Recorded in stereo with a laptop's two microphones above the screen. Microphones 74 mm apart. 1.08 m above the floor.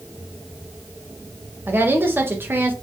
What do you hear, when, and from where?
1.7 s a woman speaking: 30° right (ahead or behind), 0.7 m